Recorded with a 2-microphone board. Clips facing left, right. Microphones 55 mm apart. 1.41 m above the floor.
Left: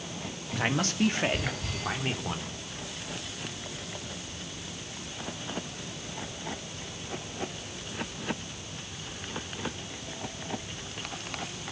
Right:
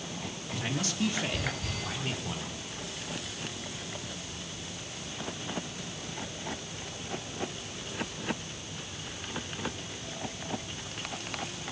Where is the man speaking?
65° left (ahead or behind), 1.8 m; by 2.5 s 35° left (ahead or behind), 4.5 m.